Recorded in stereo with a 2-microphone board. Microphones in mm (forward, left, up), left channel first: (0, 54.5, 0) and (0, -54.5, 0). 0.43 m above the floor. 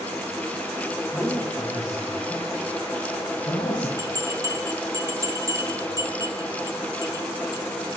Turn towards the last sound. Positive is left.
turn(degrees=-30)  # may be behind; listen again after turning